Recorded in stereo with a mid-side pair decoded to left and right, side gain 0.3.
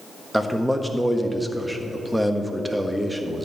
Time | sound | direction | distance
0.3 | a man speaking | 10° right | 1.3 m